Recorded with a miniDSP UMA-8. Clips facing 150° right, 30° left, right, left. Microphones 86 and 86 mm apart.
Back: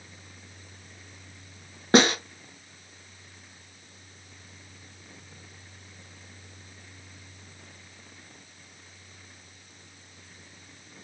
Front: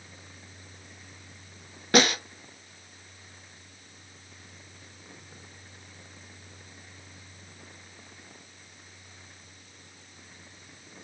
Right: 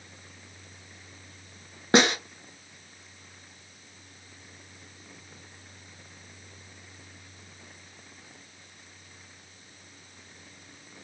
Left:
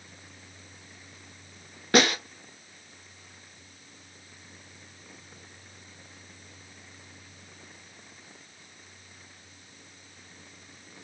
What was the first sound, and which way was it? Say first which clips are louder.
A snare drum: back 3 dB, right 1 dB; 130° right.